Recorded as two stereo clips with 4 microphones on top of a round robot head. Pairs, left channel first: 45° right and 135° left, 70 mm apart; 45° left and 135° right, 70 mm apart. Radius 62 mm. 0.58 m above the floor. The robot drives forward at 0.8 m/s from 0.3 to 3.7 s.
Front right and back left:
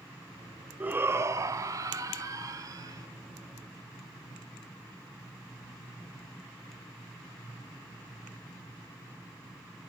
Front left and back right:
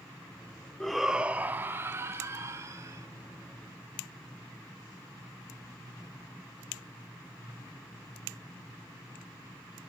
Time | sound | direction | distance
0.8 | a shout | 115° left | 0.6 m